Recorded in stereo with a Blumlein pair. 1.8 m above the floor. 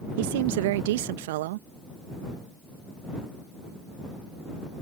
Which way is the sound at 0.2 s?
50° right.